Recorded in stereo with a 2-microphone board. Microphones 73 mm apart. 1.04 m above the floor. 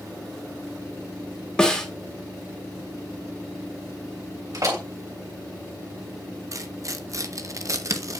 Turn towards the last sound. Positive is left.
turn(degrees=-45)  # may be behind; listen again after turning